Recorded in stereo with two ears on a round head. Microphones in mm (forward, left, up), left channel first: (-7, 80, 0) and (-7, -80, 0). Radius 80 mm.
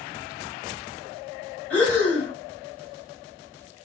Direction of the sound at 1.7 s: 10° left (ahead or behind).